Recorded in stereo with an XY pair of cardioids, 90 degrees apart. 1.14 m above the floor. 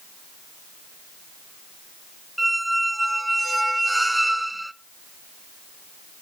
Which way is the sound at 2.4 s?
10° right.